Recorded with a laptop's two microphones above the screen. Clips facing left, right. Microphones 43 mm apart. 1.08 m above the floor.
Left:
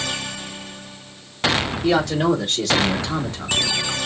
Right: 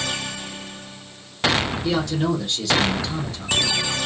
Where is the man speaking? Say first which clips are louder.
Left 8 dB; 85° left, 2.5 m; by 4.0 s 55° left (ahead or behind), 2.5 m.